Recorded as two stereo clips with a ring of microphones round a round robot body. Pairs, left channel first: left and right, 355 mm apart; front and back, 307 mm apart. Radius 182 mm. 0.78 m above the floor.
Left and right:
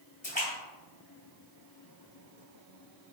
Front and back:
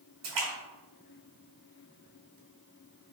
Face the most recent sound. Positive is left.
turn(degrees=160)